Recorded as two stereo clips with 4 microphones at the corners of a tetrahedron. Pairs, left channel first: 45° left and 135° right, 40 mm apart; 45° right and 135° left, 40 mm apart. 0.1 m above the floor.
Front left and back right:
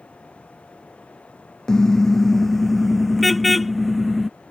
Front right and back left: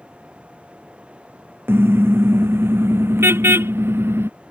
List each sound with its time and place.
1.7 s a car horn: 120° left; by 4.3 s 135° left